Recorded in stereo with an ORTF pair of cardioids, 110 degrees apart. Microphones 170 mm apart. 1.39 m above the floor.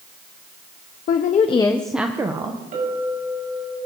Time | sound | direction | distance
1.1 | a woman speaking | 60° left | 0.9 m
2.7 | a clink | 55° right | 6 m